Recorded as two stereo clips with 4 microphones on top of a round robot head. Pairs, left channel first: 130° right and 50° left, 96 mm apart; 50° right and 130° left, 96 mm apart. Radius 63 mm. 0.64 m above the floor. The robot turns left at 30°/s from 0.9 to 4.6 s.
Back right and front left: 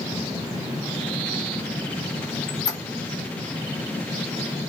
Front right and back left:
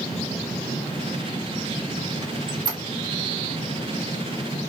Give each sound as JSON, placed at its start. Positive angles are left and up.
{"t": 2.2, "sound": "a squeak", "azimuth_deg": -170, "distance_m": 0.9}